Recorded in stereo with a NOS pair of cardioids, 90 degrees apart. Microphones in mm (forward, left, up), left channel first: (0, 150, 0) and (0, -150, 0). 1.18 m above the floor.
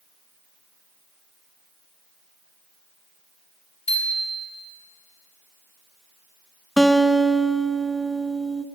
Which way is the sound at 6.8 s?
Straight ahead.